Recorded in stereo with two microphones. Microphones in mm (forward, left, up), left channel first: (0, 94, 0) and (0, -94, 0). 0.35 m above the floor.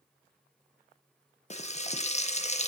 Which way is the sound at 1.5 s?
35° left (ahead or behind).